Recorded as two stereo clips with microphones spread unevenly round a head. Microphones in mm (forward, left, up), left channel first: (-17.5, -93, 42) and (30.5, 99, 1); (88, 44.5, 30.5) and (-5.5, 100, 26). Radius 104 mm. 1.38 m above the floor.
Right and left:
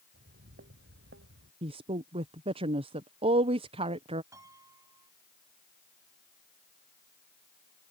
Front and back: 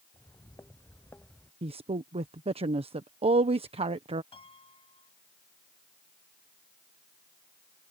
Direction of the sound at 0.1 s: 30° left.